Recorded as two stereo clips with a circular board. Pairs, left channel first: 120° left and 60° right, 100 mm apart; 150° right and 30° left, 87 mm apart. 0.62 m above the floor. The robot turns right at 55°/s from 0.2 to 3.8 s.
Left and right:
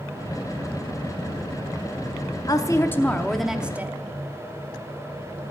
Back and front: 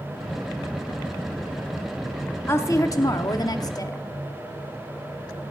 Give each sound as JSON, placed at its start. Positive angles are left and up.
{"t": 2.5, "sound": "a woman speaking", "azimuth_deg": 160, "distance_m": 0.8}